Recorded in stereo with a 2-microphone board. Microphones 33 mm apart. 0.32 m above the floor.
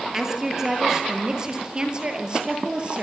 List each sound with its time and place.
0.1 s a woman speaking: 15° right (ahead or behind), 7 m; by 3.0 s 35° right (ahead or behind), 7.5 m